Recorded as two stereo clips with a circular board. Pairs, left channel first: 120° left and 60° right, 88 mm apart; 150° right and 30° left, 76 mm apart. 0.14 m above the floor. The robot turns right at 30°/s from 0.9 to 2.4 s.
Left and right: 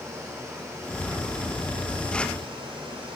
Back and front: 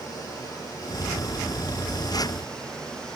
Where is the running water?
115° right, 4.5 m; by 3.1 s 70° right, 4.5 m.